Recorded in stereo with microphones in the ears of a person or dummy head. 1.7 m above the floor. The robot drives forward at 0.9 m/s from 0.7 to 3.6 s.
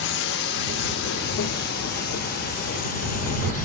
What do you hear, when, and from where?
0.0 s a drone: 60° left (ahead or behind); by 3.6 s 45° left (ahead or behind)